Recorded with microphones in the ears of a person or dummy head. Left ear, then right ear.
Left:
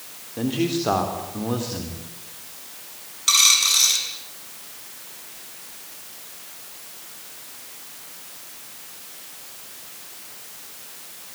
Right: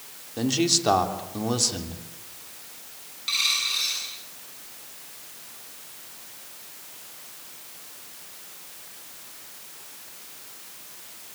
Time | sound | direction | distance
0.4 | a man speaking | 85° right | 3.5 m
3.3 | a dropped coin | 40° left (ahead or behind) | 6.5 m